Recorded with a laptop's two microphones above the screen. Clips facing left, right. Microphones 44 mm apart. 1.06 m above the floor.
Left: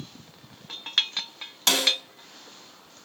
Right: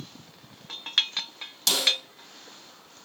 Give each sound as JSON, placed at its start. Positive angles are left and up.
{"t": 1.7, "sound": "a snare drum", "side_deg": 40, "distance_m": 2.5}